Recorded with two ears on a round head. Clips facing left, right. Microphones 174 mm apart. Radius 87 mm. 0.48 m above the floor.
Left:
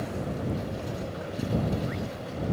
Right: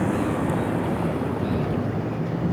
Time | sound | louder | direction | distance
0.0 | a vehicle | right 9 dB | 75° right (ahead or behind) | ?